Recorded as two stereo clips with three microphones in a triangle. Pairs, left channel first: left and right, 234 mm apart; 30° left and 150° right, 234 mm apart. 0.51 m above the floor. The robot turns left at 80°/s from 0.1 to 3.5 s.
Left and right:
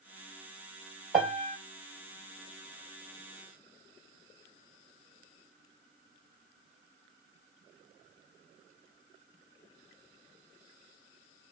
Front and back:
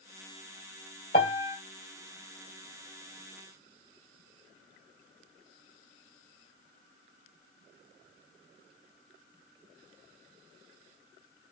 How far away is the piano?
About 2.0 m.